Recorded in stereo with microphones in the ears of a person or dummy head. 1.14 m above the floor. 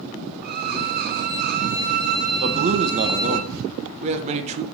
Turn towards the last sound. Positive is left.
turn(degrees=-35)  # may be behind; listen again after turning